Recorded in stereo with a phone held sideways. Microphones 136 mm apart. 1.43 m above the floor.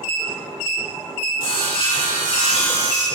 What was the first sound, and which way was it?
Sawing, 45° left (ahead or behind).